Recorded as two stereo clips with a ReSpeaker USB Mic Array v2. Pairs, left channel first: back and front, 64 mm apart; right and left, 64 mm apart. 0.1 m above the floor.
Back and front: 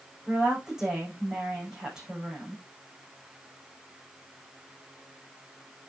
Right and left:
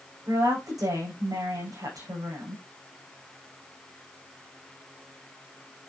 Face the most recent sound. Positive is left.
turn(degrees=80)